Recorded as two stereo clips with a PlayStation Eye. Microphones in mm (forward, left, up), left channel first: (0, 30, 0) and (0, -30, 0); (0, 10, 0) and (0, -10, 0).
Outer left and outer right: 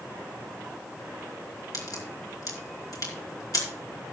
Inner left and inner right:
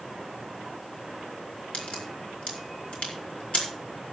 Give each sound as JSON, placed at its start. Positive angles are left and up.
{"t": 1.7, "sound": "a crack", "side_deg": 80, "distance_m": 4.5}